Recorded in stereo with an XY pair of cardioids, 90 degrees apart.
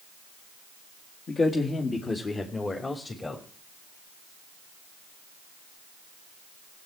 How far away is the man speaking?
About 2.5 m.